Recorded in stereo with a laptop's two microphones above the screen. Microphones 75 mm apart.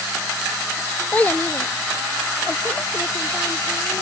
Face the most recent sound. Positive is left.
turn(degrees=35)  # may be behind; listen again after turning